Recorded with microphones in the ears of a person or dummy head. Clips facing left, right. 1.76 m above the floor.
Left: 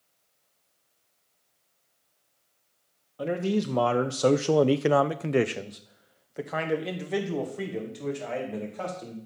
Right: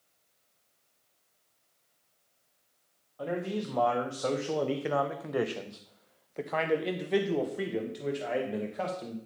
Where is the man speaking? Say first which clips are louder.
Left 6 dB; 35° left (ahead or behind), 1.3 m; by 9.2 s 10° right (ahead or behind), 3 m.